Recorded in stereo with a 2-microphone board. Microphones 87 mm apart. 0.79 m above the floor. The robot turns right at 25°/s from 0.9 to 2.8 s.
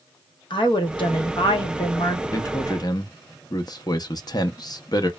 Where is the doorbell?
I don't hear a doorbell.